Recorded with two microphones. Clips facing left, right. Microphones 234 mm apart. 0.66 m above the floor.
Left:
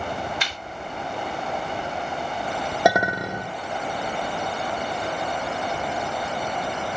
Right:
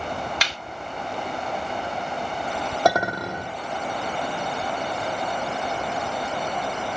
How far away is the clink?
About 0.9 m.